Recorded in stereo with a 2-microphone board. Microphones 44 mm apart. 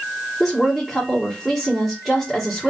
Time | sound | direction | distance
0.4 | a woman speaking | 5° left (ahead or behind) | 1.6 m